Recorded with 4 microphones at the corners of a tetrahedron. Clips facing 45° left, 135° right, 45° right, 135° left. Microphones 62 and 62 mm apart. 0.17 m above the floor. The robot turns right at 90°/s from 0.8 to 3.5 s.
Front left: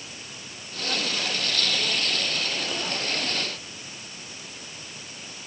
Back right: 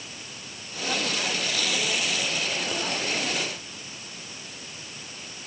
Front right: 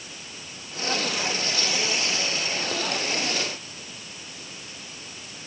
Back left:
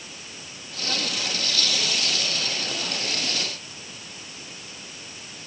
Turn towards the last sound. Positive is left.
No sound to turn to.